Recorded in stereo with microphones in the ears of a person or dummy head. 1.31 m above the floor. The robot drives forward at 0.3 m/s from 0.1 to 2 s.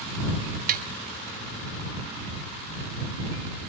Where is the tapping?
45° right (ahead or behind), 2 m.